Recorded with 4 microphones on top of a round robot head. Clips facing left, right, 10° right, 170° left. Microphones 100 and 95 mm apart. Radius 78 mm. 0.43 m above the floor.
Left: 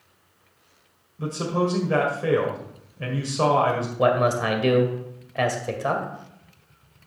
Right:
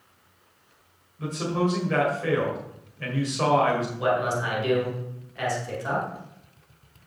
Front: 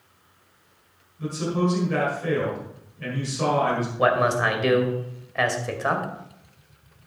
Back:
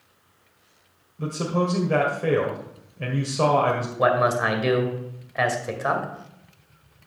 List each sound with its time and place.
1.2 s a man speaking: 145° left, 1.8 m
4.0 s a man speaking: 85° left, 2 m